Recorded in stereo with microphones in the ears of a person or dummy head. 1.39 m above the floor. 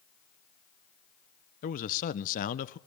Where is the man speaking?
45° left (ahead or behind), 0.9 m.